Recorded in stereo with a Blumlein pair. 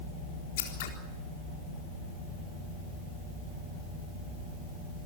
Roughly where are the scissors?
Ahead left.